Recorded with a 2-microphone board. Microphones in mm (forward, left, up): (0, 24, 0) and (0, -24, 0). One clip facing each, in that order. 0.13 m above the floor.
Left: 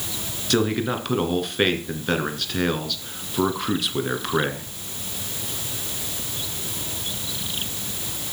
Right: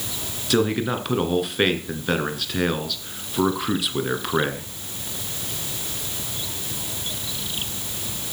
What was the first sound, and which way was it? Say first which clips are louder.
A man speaking: right 1 dB; centre (ahead or behind).